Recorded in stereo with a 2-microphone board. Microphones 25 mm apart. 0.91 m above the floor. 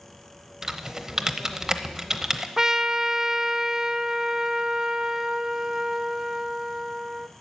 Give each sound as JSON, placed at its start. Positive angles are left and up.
{"t": 0.6, "sound": "typing on a keyboard", "side_deg": -20, "distance_m": 0.8}
{"t": 2.6, "sound": "a trumpet", "side_deg": -20, "distance_m": 0.5}